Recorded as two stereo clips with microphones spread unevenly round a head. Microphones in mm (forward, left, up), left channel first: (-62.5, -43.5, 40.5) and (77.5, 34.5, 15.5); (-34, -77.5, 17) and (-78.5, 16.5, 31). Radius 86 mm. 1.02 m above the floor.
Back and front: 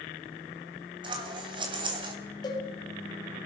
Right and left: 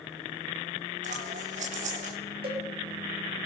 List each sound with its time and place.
1.0 s scissors: 95° left, 3.5 m
2.4 s a cowbell: 145° left, 6 m